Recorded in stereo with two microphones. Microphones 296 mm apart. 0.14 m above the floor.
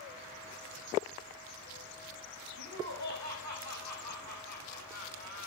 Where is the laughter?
70° right (ahead or behind), 9 m; by 5.5 s 60° right (ahead or behind), 9.5 m.